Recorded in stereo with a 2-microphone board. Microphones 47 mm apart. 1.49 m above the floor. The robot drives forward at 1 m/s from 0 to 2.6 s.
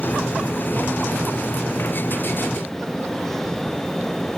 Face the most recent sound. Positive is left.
No sound to turn to.